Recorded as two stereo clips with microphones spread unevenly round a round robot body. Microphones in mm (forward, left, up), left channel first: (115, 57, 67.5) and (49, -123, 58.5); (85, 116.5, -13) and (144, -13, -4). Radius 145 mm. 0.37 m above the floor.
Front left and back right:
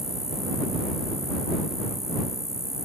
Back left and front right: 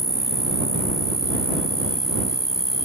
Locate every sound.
0.0 s an insect: 25° right